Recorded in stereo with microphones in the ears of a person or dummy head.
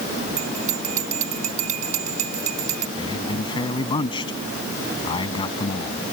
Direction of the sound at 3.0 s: 25° left (ahead or behind).